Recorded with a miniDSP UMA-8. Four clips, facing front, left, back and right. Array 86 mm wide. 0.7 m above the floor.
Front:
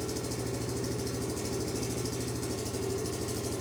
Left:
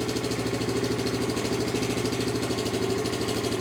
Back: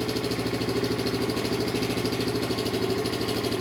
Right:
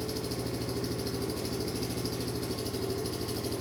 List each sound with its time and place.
0.0 s an engine running: 140° left, 1.3 m